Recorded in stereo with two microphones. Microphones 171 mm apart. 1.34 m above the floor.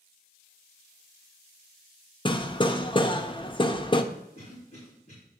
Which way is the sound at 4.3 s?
45° left (ahead or behind).